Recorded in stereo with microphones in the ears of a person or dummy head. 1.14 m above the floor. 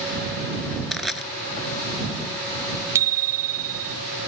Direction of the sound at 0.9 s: Centre (ahead or behind).